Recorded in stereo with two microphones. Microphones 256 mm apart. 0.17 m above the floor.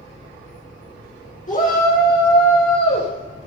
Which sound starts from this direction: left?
A shout, at 1.5 s.